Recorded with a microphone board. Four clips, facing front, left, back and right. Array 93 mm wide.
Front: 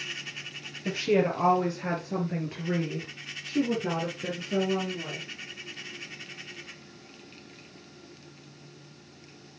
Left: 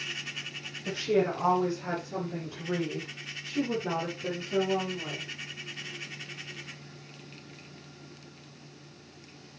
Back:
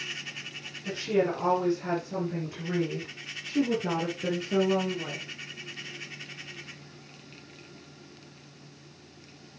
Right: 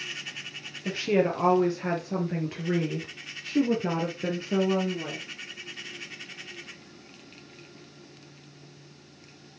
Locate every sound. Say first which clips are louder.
0.8 s a woman speaking: right 2 dB, front 2 dB; 45° right, 3.5 m; by 5.3 s 110° right, 3 m